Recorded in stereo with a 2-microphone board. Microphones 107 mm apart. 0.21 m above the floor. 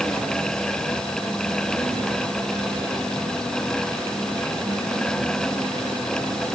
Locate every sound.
Only background noise.